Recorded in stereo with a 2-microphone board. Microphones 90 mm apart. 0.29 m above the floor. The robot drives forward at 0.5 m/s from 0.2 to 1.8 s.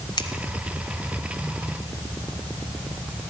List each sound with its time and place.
0.2 s scissors: 50° left (ahead or behind), 1.5 m